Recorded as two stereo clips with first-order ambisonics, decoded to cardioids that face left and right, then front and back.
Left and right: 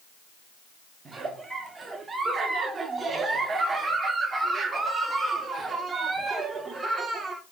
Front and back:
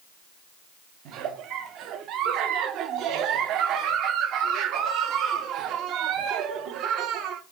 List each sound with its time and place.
1.1 s a giggle: 155° right, 0.5 m